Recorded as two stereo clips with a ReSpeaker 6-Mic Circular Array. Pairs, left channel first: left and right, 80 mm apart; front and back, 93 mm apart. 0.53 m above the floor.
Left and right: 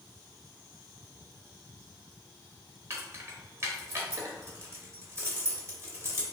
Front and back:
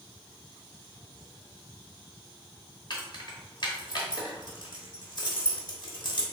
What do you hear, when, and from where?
2.9 s keys jangling: 35° right, 1.3 m